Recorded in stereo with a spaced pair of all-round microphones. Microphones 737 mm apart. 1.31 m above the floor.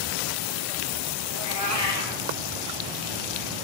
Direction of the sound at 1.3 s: 55° left (ahead or behind).